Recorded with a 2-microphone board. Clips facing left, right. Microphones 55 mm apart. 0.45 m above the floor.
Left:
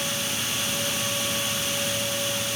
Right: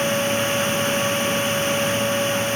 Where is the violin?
I don't hear a violin.